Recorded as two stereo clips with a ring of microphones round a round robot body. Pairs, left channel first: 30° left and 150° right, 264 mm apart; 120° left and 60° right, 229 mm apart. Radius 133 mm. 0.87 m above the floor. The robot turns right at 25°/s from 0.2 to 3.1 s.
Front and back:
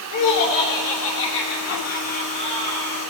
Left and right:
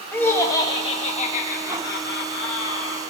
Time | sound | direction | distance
0.1 | laughter | 40° left | 1.1 m